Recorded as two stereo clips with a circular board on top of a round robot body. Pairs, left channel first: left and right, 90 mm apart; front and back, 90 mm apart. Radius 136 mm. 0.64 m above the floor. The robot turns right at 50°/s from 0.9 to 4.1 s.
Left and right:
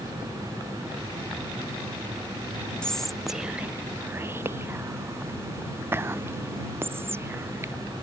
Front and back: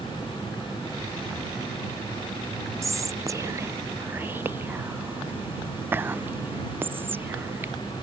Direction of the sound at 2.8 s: 165° left.